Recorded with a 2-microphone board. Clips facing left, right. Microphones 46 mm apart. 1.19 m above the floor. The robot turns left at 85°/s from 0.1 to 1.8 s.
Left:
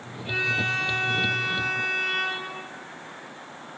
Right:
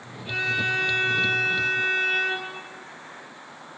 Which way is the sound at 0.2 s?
10° left.